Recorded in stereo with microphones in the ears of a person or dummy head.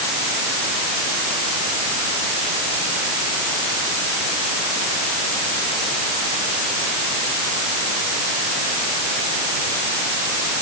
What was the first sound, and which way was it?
Only background noise.